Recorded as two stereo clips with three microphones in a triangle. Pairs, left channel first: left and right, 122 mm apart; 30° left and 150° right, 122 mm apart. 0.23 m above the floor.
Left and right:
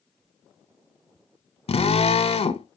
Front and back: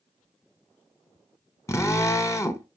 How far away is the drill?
About 0.8 m.